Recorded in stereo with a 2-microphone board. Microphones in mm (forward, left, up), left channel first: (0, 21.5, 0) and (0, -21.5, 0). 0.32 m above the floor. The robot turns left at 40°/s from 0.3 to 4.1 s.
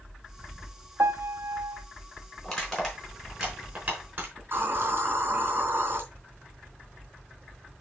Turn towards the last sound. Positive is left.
turn(degrees=-55)  # may be behind; listen again after turning